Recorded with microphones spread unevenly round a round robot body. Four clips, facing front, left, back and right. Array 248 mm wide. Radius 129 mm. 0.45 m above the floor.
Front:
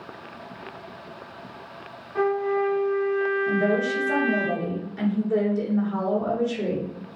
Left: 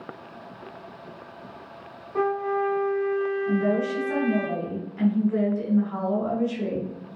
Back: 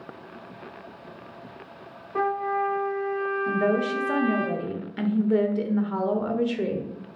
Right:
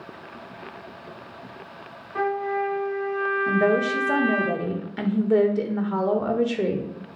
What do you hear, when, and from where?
2.1 s a trumpet: 155° left, 2.5 m
3.5 s a woman speaking: 115° right, 1.3 m